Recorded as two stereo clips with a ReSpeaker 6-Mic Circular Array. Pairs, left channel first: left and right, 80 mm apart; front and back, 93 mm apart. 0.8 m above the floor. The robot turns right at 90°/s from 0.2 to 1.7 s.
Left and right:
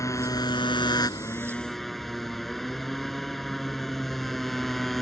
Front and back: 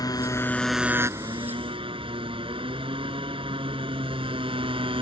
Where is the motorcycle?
45° left; by 5.0 s straight behind.